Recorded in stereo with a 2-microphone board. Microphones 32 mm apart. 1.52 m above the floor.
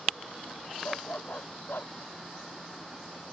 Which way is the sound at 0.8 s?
70° left (ahead or behind).